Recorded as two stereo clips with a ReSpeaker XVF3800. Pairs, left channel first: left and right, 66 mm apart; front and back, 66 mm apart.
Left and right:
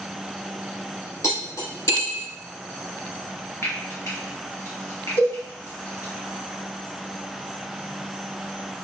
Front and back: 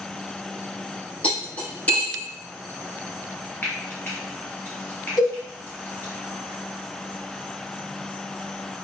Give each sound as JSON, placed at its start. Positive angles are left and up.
{"t": 1.2, "sound": "cutlery clinking", "azimuth_deg": 65, "distance_m": 1.5}
{"t": 3.6, "sound": "frying", "azimuth_deg": 55, "distance_m": 1.5}
{"t": 5.2, "sound": "a cowbell", "azimuth_deg": 95, "distance_m": 1.7}